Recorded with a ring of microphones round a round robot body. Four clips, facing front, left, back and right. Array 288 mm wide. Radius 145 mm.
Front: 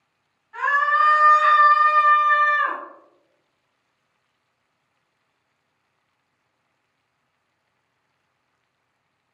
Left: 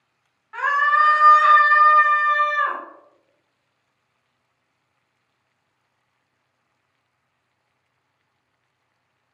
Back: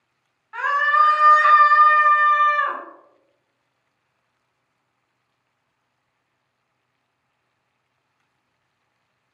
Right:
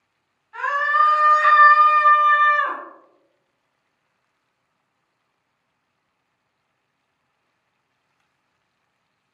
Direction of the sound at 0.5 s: 155° left.